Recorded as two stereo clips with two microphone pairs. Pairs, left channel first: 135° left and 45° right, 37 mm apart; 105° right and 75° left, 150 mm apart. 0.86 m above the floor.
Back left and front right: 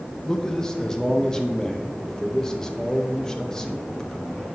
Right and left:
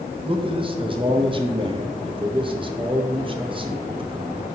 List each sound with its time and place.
0.2 s a man speaking: 80° left, 0.6 m